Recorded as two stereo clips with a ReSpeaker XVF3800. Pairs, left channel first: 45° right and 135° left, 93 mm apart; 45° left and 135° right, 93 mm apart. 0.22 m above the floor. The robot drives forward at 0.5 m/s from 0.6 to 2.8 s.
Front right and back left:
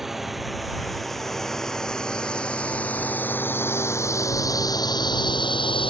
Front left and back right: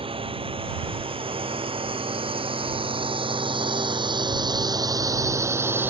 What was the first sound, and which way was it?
A drone, 140° right.